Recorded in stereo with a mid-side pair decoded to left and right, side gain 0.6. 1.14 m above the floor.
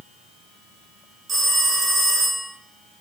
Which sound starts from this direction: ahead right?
A phone ringing, at 1.3 s.